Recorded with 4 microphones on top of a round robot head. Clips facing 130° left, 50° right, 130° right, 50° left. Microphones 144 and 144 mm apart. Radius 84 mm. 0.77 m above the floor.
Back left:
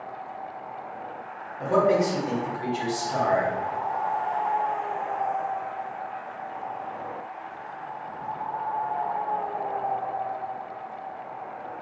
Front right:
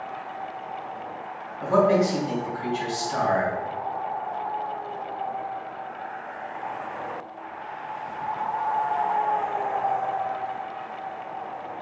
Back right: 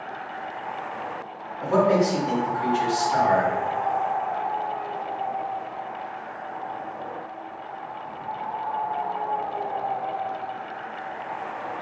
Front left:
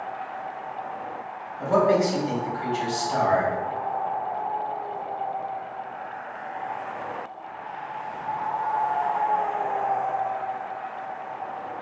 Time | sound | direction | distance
1.6 | a man speaking | 105° left | 1.8 m